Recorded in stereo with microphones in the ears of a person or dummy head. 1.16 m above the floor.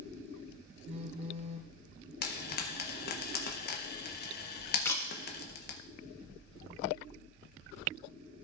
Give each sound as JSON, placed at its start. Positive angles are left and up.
{"t": 0.8, "sound": "a phone buzzing", "side_deg": -30, "distance_m": 0.8}
{"t": 2.2, "sound": "frying", "side_deg": 45, "distance_m": 0.7}
{"t": 4.8, "sound": "a camera shutter", "side_deg": 10, "distance_m": 1.2}